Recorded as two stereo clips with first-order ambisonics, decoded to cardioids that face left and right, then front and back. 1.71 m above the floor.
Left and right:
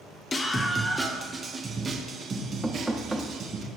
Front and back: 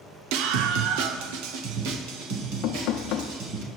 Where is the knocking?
5° right, 0.6 m.